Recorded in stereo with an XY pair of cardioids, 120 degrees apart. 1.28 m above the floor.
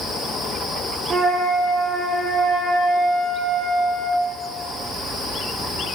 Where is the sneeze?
No sneeze in this recording.